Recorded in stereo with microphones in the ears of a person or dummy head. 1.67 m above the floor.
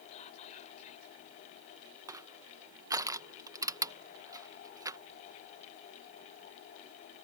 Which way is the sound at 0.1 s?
40° left (ahead or behind).